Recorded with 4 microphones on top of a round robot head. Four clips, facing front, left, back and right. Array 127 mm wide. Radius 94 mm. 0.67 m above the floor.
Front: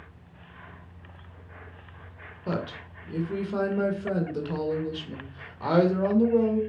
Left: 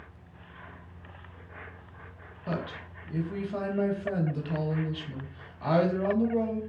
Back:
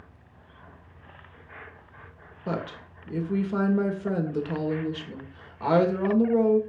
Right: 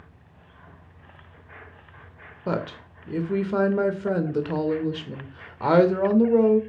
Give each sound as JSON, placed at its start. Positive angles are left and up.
{"t": 2.5, "sound": "a woman speaking", "azimuth_deg": -95, "distance_m": 2.0}